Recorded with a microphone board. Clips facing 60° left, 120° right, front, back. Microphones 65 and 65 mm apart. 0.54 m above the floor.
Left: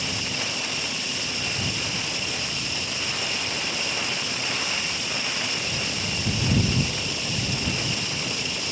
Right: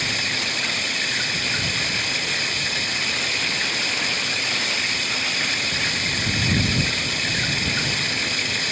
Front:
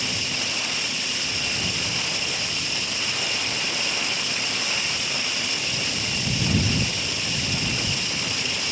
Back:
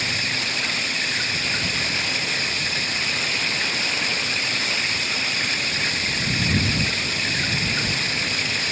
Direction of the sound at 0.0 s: 145° right.